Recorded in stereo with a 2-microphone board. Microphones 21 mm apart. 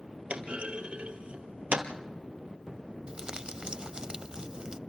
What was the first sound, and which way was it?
A clunk, 75° right (ahead or behind).